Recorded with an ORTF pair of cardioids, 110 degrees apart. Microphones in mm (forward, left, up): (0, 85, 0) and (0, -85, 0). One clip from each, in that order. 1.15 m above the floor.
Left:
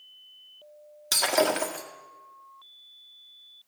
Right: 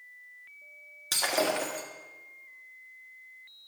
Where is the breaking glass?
20° left, 1.8 m.